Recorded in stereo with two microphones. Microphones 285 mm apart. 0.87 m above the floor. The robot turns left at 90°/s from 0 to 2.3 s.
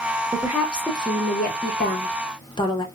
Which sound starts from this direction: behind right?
A woman speaking, at 0.3 s.